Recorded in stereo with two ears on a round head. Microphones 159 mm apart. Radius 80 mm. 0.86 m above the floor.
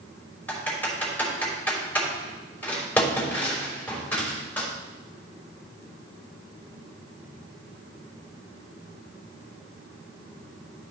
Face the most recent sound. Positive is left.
turn(degrees=10)  # may be behind; listen again after turning